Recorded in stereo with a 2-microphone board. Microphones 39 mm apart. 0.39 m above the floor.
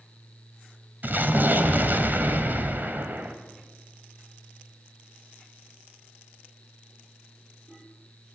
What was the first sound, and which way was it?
An explosion, 55° right (ahead or behind).